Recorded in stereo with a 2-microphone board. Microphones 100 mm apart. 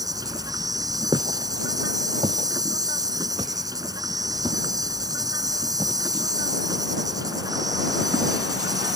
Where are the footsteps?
55° right (ahead or behind); by 8.9 s 50° right (ahead or behind).